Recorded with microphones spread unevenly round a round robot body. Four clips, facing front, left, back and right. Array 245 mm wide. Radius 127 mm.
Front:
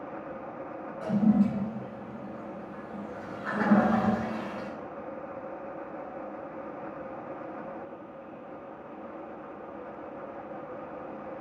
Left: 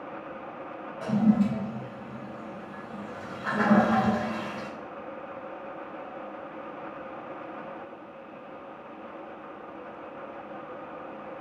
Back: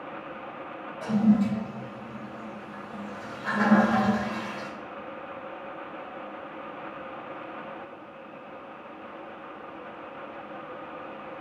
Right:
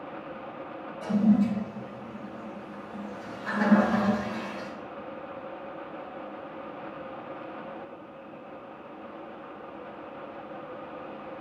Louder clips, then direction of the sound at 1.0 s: Even, back 2 dB; 105° left.